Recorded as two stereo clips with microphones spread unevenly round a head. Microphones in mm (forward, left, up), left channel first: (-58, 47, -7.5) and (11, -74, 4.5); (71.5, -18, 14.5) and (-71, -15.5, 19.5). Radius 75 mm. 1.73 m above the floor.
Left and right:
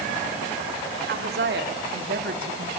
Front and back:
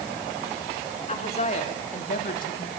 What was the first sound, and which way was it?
A woman speaking, 50° right.